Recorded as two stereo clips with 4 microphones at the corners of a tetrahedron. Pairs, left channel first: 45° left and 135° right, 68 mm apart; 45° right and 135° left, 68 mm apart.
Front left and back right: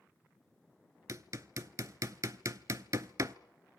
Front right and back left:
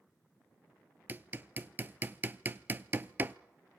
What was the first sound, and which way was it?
Hammering, 170° right.